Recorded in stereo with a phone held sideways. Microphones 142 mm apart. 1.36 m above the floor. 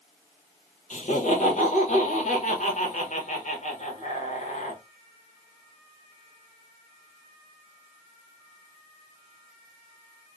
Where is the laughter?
55° left (ahead or behind), 0.9 m.